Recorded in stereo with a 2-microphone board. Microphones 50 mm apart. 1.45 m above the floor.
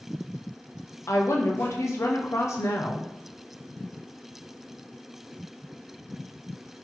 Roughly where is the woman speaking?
Left.